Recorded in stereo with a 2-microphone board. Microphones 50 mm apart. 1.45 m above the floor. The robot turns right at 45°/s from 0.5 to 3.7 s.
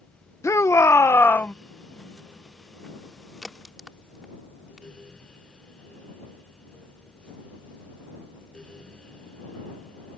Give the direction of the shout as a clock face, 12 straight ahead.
9 o'clock.